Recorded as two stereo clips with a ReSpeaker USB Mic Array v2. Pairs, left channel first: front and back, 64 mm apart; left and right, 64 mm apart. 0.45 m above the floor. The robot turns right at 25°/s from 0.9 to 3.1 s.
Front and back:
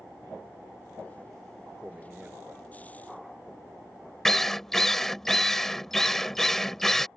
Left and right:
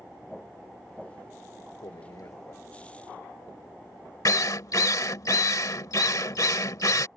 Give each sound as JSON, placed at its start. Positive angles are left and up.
{"t": 1.8, "sound": "a man speaking", "azimuth_deg": 105}
{"t": 4.2, "sound": "a drill", "azimuth_deg": 85}